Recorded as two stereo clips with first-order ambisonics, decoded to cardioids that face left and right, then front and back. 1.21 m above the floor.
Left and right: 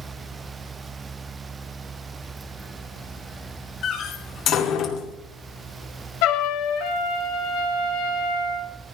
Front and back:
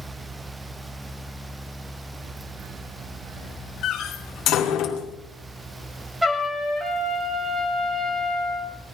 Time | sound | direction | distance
3.8 | a door slam | 45° left | 2 m
6.2 | a trumpet | 95° left | 3 m